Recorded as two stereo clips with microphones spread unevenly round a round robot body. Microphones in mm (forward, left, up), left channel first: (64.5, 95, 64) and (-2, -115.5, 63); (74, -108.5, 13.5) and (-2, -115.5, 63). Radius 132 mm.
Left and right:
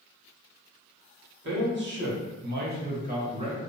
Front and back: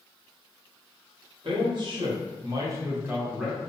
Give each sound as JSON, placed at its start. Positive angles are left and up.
{"t": 1.4, "sound": "a man speaking", "azimuth_deg": -135, "distance_m": 1.2}